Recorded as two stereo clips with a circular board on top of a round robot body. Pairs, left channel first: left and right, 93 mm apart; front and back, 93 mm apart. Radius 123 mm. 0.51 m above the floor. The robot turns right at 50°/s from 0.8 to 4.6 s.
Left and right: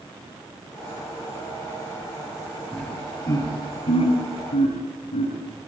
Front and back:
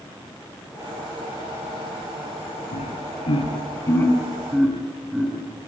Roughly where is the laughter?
Ahead.